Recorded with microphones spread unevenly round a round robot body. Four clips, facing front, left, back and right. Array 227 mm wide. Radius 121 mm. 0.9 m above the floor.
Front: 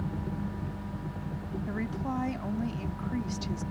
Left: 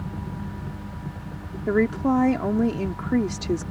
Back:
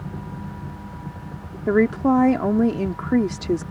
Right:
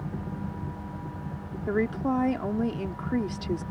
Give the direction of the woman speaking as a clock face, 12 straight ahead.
7 o'clock.